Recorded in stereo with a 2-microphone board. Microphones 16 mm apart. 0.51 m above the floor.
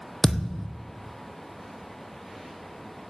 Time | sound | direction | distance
0.2 | a thud | 10° left (ahead or behind) | 1.4 m